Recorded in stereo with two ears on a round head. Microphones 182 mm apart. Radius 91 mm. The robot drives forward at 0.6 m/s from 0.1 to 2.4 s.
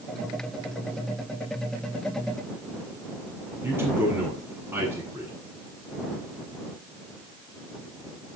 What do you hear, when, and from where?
3.6 s a man speaking: 10° right (ahead or behind), 8 m